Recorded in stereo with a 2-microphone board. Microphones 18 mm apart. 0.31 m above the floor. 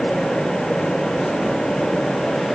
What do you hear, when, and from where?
Only background noise.